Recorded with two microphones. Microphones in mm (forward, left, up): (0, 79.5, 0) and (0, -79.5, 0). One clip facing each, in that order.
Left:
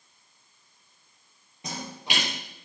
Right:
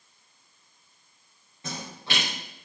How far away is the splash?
About 7 m.